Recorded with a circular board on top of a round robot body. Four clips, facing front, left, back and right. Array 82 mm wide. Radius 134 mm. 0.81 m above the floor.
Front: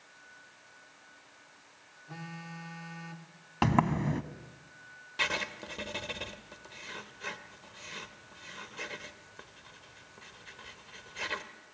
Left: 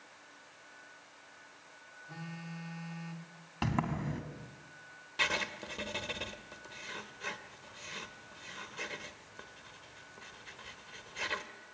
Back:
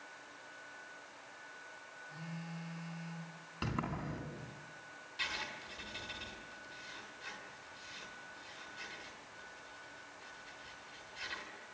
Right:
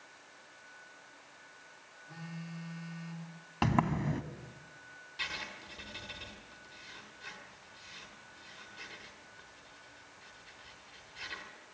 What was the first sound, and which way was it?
A phone buzzing, 15° left.